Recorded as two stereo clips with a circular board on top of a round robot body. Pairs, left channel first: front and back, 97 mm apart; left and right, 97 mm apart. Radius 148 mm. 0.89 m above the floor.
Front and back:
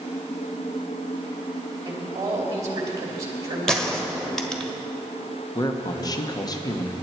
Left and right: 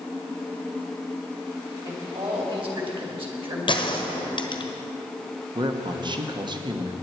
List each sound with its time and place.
1.9 s a man speaking: 120° right, 2.5 m
3.7 s a gunshot: 85° left, 1.4 m
5.5 s a man speaking: 50° right, 1.1 m